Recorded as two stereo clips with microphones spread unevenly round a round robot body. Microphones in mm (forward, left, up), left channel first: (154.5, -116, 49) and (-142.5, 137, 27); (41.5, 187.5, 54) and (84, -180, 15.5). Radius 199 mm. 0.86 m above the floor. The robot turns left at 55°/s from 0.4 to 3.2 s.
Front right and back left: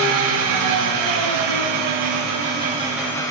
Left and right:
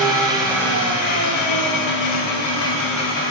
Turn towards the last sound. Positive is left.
turn(degrees=40)